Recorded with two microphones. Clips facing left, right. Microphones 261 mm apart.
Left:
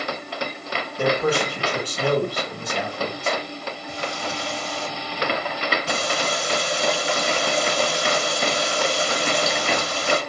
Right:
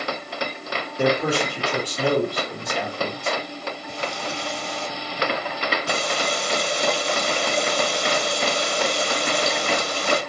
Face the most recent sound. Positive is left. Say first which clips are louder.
# left 1 dB
turn(degrees=0)  # may be behind; listen again after turning